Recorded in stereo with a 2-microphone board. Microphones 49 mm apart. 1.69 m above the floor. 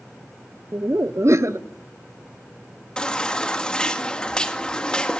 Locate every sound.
0.7 s laughter: 60° right (ahead or behind), 1.2 m
3.0 s a baby crying: 15° left (ahead or behind), 1.7 m